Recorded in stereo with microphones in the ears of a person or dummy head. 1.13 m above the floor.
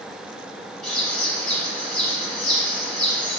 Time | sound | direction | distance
0.8 | a bird | 5° left (ahead or behind) | 1.1 m